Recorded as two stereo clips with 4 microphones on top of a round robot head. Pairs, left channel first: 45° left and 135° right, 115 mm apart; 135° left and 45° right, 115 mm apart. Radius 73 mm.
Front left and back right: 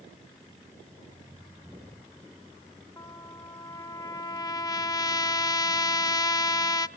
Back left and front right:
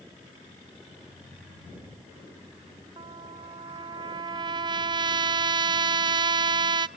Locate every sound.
3.0 s a trumpet: 5° right, 0.5 m